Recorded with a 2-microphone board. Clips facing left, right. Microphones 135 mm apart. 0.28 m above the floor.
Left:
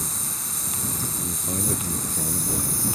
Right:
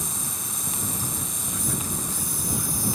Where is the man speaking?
45° left (ahead or behind).